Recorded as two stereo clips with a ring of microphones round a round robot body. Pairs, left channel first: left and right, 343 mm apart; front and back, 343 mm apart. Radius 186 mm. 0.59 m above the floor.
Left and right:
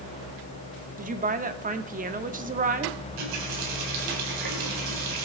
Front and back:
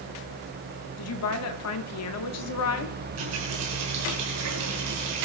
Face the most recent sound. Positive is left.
turn(degrees=-125)